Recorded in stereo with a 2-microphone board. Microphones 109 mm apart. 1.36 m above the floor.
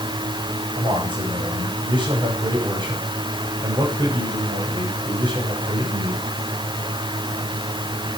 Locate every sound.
0.8 s a man speaking: 45° right (ahead or behind), 8.5 m